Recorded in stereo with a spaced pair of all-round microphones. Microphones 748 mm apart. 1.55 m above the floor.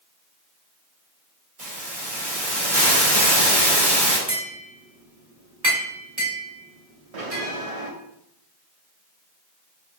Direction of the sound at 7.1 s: 50° right (ahead or behind).